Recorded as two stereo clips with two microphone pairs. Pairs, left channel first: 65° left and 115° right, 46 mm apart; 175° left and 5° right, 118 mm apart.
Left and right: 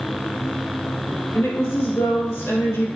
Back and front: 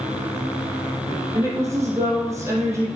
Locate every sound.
1.4 s a woman speaking: 60° left, 2.5 m